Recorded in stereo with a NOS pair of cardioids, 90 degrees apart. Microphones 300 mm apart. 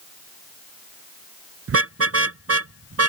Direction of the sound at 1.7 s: 45° right.